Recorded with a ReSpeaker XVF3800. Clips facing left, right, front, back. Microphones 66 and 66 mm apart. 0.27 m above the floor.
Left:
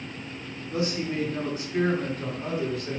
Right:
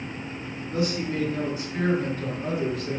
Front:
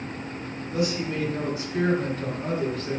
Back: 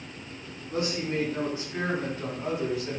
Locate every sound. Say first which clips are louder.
0.7 s a man speaking: right 1 dB, front 2 dB; 145° left, 2.5 m; by 3.0 s 105° left, 1.9 m